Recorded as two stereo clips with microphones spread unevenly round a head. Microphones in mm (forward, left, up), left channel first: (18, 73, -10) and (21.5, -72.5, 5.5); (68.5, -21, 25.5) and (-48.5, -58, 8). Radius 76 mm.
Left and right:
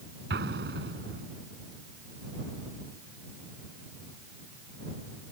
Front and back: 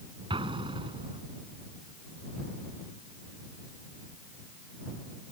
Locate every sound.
0.3 s an explosion: 115° right